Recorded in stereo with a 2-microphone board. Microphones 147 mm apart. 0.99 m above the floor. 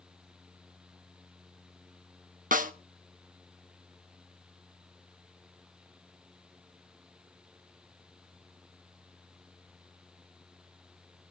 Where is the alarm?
No alarm in this recording.